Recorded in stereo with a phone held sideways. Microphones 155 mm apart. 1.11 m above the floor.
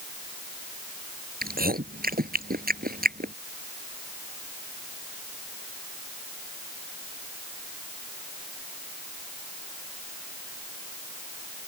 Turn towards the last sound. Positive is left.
turn(degrees=-75)  # may be behind; listen again after turning